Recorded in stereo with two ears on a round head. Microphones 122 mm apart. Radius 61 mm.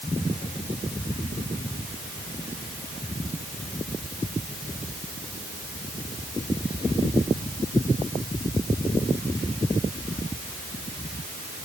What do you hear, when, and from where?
Only background noise.